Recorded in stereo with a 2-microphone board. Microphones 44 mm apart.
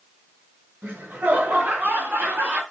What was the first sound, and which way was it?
Laughter, 50° right (ahead or behind).